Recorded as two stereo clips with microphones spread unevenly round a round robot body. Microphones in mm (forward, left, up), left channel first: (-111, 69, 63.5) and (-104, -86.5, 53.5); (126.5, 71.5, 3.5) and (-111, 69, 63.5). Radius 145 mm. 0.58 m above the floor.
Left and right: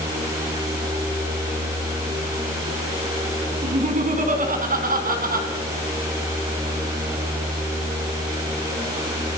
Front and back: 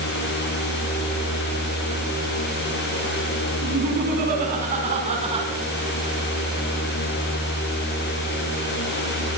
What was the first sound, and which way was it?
Laughter, 125° right.